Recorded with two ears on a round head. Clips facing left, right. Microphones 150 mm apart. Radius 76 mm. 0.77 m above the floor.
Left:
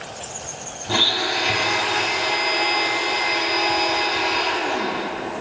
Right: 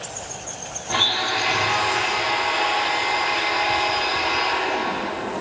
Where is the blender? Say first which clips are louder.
Left 2 dB; 45° left (ahead or behind), 0.9 m.